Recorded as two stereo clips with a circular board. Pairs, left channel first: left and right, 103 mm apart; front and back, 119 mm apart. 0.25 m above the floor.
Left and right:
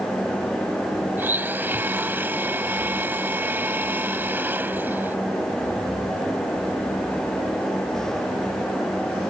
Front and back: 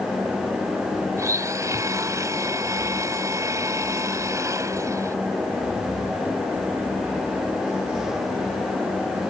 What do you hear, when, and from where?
1.2 s a blender: 145° right